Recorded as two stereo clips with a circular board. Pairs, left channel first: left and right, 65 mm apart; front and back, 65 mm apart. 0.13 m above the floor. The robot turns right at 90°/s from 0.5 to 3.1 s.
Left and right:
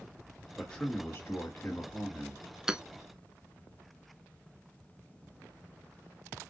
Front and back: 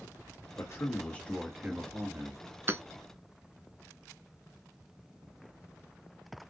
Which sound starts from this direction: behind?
Hammering, at 2.7 s.